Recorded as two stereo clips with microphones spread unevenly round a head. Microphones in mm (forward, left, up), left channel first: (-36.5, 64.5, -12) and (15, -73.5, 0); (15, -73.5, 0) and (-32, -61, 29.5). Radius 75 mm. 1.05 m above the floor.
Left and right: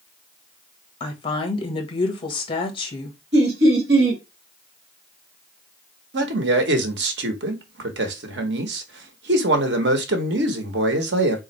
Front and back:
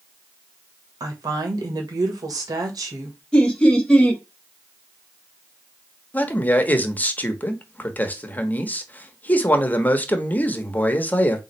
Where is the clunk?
No clunk in this recording.